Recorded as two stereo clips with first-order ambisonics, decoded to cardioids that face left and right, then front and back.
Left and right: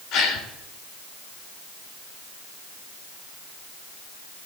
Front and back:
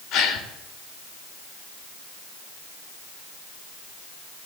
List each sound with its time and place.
0.1 s a gasp: 40° left, 2.5 m